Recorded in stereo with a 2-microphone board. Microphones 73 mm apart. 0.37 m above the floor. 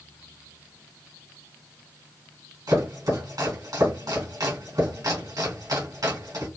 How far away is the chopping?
About 2 m.